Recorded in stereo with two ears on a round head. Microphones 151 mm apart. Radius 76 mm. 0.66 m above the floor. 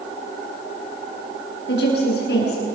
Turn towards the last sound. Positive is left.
turn(degrees=75)  # may be behind; listen again after turning